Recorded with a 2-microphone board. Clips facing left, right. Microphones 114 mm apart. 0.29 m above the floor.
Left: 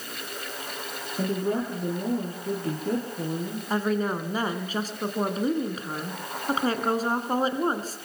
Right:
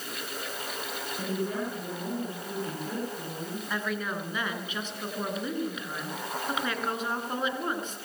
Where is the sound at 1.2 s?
40° left (ahead or behind), 8.5 m.